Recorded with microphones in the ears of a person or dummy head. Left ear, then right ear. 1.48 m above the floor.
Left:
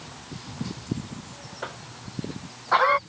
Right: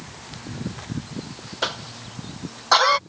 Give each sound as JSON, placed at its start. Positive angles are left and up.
{"t": 1.6, "sound": "a cough", "side_deg": -85}